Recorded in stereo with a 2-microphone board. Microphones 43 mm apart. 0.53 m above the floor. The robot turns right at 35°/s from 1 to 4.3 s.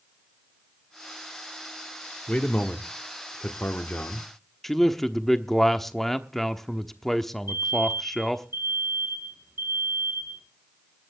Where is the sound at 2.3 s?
35° left, 1.2 m; by 4.3 s 105° left, 1.2 m.